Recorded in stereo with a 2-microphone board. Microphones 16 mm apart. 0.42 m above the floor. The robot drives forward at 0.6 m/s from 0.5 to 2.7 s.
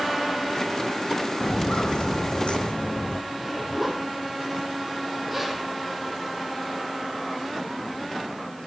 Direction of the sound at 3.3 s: 5° right (ahead or behind).